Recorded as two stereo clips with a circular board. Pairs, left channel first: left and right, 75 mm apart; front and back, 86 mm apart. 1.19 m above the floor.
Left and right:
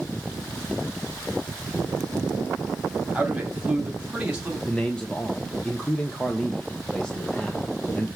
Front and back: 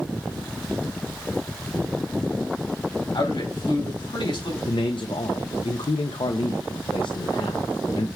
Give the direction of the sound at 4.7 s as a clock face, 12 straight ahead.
12 o'clock.